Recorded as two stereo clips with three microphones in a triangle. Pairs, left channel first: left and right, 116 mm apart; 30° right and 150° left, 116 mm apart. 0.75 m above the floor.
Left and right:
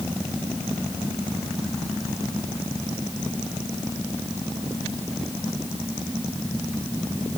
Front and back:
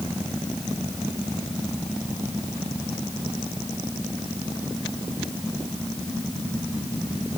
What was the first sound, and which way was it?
Only background noise.